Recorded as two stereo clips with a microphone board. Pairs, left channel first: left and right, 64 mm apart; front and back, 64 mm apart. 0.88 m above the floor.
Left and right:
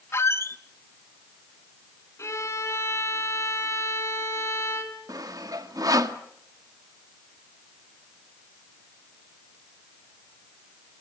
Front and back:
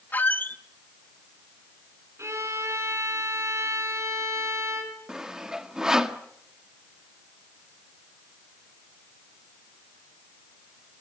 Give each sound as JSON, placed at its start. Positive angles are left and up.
{"t": 0.1, "sound": "a squeak", "azimuth_deg": 55, "distance_m": 0.9}
{"t": 2.2, "sound": "a violin", "azimuth_deg": 135, "distance_m": 4.5}
{"t": 5.1, "sound": "sawing", "azimuth_deg": -100, "distance_m": 1.6}